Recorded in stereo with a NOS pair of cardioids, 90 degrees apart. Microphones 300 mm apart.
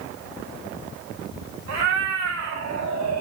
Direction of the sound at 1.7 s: 60° right.